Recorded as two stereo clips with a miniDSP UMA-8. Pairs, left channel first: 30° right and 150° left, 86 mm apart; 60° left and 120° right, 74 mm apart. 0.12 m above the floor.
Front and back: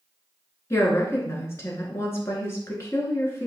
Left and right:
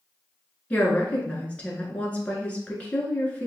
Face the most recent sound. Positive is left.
turn(degrees=0)